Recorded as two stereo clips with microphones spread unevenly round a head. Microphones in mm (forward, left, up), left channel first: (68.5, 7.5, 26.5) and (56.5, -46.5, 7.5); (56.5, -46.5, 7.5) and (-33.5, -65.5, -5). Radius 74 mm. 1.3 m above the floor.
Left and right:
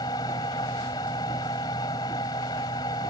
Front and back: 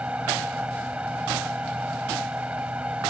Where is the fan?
105° left.